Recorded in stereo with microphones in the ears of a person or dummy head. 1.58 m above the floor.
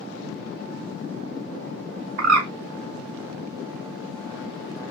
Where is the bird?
70° right (ahead or behind), 0.5 m.